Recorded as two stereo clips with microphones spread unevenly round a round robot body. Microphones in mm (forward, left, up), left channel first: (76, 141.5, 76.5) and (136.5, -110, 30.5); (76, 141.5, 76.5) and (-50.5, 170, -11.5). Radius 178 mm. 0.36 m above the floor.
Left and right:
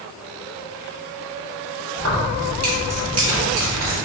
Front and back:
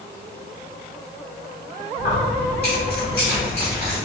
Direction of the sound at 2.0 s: 60° right.